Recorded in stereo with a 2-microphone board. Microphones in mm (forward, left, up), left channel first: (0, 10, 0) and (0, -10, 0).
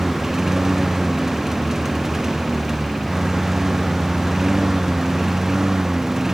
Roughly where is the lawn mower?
Right.